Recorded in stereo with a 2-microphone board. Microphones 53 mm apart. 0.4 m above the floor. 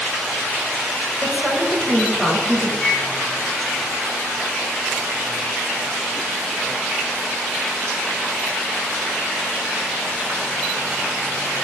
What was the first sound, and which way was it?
A woman speaking, 35° right (ahead or behind).